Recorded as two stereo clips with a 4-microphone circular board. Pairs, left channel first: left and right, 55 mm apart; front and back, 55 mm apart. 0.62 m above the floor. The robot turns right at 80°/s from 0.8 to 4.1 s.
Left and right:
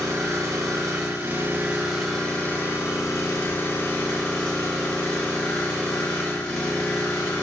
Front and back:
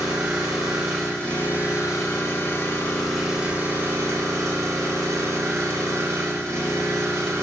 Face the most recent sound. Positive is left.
turn(degrees=165)